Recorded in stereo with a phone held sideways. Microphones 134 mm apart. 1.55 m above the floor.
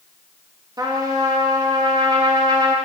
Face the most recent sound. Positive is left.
turn(degrees=-30)  # may be behind; listen again after turning